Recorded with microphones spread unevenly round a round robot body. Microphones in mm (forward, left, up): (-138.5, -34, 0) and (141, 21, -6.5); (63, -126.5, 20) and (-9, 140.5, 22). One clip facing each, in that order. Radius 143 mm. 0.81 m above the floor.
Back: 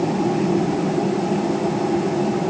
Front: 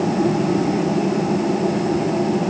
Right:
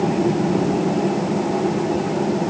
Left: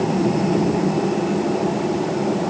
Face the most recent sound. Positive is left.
No sound to turn to.